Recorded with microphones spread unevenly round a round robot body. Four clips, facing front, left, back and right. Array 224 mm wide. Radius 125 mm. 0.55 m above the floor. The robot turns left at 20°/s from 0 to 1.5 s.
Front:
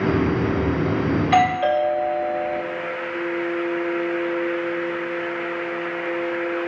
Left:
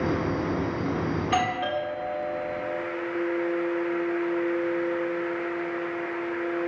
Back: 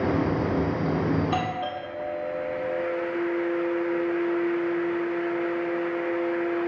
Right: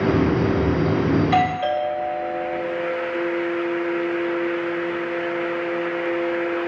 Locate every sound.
1.2 s a doorbell: 10° right, 4 m; by 2.6 s 20° right, 4 m